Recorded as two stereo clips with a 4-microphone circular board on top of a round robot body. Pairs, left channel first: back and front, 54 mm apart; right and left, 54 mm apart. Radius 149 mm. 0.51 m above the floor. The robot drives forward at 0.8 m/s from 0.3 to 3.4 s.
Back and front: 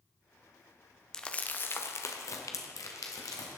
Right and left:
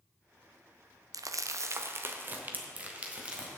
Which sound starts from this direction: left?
Crumpling, at 1.1 s.